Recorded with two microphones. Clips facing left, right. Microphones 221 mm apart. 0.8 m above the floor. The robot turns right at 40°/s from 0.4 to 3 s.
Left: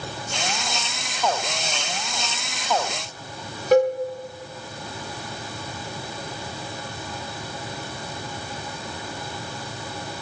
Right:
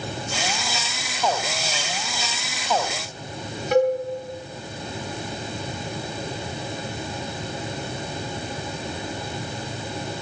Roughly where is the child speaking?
I don't hear a child speaking.